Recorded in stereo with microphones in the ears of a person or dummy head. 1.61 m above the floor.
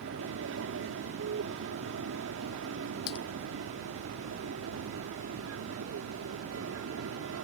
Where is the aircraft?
70° right (ahead or behind); by 7.5 s 75° right (ahead or behind).